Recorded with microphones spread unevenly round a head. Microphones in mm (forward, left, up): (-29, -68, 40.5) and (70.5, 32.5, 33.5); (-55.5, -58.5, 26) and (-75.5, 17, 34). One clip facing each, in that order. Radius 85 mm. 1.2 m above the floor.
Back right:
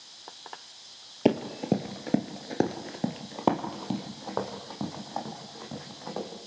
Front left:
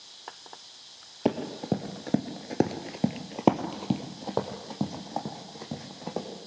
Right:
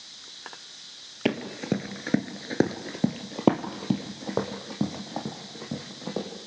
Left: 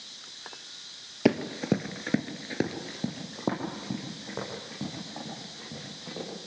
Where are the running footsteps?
165° left, 1.5 m; by 6.3 s 25° right, 4.5 m.